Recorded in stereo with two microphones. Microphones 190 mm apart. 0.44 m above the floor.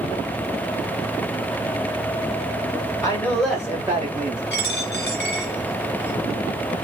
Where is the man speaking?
20° left (ahead or behind), 1.6 m; by 4.4 s 40° right (ahead or behind), 1.6 m.